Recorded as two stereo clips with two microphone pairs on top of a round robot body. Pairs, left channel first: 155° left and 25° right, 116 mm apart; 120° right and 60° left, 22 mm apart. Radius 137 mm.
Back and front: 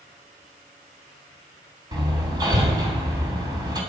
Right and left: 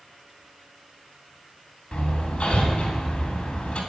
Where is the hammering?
80° right, 3.5 m.